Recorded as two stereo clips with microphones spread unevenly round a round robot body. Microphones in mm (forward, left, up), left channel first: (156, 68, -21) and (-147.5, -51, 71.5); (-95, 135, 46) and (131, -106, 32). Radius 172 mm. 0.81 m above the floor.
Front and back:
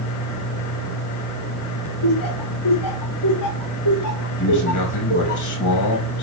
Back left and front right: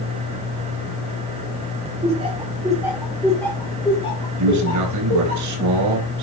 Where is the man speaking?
10° right, 4 m.